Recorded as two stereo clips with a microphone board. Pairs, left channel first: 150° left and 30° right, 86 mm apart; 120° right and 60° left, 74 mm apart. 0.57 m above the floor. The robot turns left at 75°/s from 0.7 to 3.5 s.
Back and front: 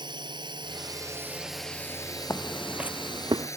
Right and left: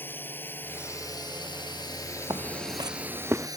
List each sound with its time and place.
0.0 s a drone: 55° right; by 3.6 s 95° left
2.3 s footsteps: 90° left; by 3.5 s 10° right